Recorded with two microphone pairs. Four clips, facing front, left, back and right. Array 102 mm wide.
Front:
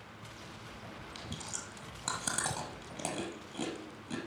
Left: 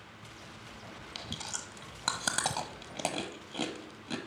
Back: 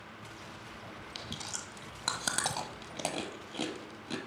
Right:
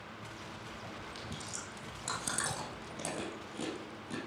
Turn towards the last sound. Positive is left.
turn(degrees=120)